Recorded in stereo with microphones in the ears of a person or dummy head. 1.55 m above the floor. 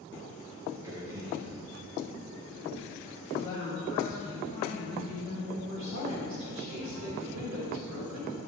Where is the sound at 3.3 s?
25° left (ahead or behind), 2 m.